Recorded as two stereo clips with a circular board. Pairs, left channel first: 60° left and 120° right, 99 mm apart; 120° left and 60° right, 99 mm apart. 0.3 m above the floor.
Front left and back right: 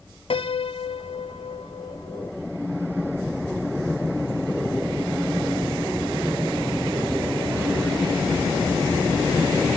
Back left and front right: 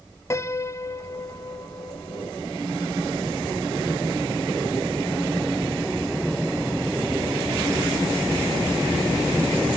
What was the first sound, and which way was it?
A piano, 65° left.